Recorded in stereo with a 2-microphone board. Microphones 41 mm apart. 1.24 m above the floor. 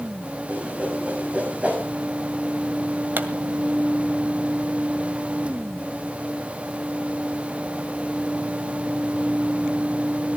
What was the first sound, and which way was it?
A whoosh, 35° right (ahead or behind).